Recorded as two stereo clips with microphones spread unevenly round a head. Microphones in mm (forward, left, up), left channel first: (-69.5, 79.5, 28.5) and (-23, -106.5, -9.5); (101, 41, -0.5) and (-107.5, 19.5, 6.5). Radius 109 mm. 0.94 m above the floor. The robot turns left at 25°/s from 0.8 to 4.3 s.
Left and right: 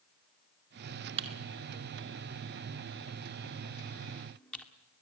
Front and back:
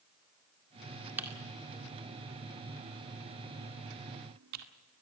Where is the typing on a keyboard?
90° right, 2 m; by 4.7 s 170° right, 2 m.